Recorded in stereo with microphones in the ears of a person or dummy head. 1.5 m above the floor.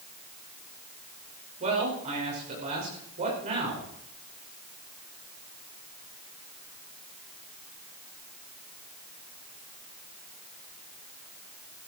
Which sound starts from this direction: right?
A man speaking, at 1.6 s.